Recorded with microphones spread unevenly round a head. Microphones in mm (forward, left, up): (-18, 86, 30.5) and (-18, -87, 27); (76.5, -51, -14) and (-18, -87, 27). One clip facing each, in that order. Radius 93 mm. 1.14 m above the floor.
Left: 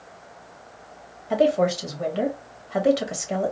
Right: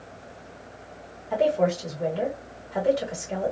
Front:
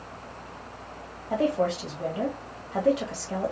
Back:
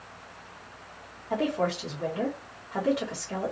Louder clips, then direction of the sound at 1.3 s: Left 2 dB, front 3 dB; 85° left.